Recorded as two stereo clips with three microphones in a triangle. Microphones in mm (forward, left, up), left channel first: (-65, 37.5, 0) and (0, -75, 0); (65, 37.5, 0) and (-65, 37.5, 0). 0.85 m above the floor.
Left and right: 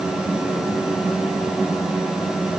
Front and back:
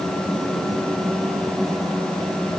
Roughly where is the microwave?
I don't hear a microwave.